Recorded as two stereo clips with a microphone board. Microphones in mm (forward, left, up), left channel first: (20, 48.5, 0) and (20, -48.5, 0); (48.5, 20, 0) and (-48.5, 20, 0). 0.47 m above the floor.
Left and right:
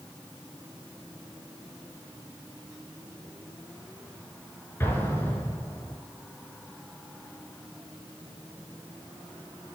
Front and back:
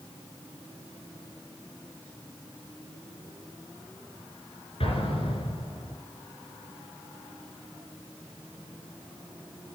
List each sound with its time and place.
4.8 s an explosion: 25° left, 3.5 m